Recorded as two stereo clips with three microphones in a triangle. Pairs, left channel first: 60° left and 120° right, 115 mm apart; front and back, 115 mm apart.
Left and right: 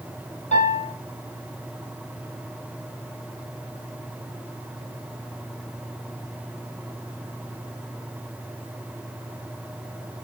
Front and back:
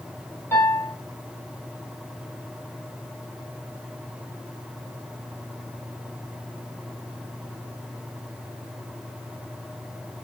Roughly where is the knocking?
I don't hear knocking.